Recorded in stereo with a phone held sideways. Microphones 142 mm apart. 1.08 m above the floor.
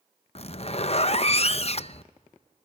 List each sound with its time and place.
0.3 s a zipper: 45° left (ahead or behind), 0.6 m